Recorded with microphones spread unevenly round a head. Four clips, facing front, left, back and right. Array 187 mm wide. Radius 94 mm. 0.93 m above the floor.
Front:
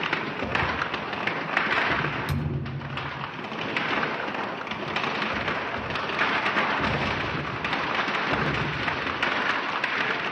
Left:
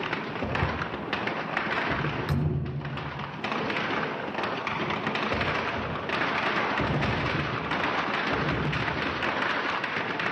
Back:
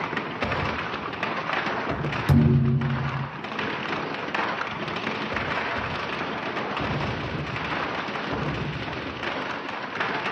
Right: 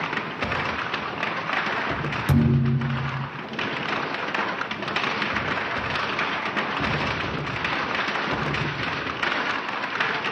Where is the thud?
140° right, 3.5 m.